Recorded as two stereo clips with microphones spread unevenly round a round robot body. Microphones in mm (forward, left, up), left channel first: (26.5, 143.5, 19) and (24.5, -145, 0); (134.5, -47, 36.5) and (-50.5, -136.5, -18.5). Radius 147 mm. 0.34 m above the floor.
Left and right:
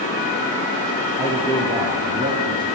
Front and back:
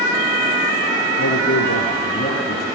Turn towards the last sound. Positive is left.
turn(degrees=-15)